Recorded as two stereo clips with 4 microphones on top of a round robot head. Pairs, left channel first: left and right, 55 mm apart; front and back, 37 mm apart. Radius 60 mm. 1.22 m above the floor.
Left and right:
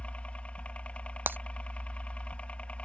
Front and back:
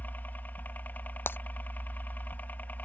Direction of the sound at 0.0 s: 30° left.